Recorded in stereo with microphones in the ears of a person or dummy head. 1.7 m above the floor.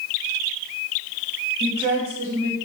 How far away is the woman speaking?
About 1.5 m.